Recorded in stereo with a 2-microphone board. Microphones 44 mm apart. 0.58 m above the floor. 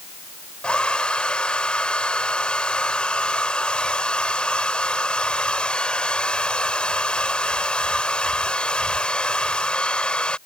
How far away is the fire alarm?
I don't hear a fire alarm.